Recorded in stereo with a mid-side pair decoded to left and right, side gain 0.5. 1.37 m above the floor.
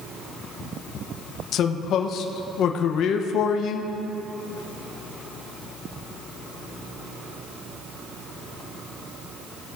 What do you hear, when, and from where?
1.5 s a man speaking: 65° left, 1.0 m